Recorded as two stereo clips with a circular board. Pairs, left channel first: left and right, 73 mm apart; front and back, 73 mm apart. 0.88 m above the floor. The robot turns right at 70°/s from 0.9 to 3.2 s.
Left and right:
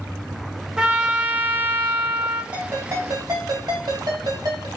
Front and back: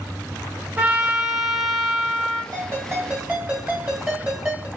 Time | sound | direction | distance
0.8 | a trumpet | 155° right | 0.6 m
2.5 | a ringtone | 160° right | 2 m